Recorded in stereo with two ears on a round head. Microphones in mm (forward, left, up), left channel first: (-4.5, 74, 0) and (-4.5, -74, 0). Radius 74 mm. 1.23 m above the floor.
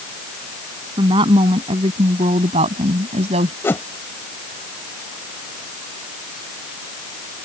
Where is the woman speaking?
30° right (ahead or behind); by 3.5 s 40° right (ahead or behind).